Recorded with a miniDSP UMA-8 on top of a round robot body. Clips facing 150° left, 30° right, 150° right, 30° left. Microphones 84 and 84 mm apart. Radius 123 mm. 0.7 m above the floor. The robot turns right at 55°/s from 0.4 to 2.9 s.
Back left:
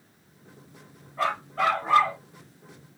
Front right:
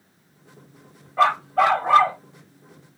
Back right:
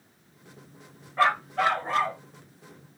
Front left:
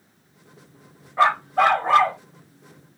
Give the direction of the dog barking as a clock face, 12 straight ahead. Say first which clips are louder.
Front right 8 dB, front left 5 dB; 1 o'clock.